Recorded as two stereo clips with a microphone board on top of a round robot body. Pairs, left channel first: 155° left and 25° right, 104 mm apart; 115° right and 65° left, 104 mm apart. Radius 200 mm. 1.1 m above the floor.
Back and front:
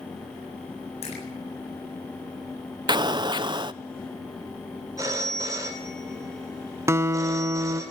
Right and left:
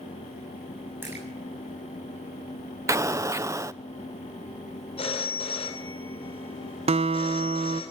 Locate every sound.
1.0 s a splash: 135° left, 8.5 m
2.9 s an explosion: 10° left, 1.0 m
5.0 s a phone ringing: 85° right, 2.5 m
6.9 s a guitar: 45° left, 0.8 m